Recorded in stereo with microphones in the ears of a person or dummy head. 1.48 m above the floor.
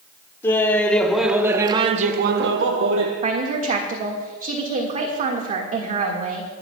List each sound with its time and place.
0.4 s laughter: 15° left (ahead or behind), 1.8 m; by 3.1 s 70° right (ahead or behind), 1.3 m
3.2 s a woman speaking: 45° right (ahead or behind), 1.7 m